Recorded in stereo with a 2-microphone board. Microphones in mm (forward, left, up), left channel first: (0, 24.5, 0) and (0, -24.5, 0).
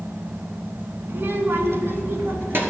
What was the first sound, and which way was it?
A child speaking, 40° right (ahead or behind).